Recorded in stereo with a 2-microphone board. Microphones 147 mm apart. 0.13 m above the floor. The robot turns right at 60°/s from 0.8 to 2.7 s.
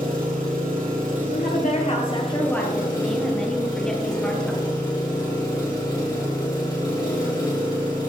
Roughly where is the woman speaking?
Left.